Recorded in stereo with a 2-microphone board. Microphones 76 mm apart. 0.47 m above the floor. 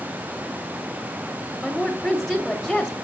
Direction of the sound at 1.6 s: 5° left (ahead or behind).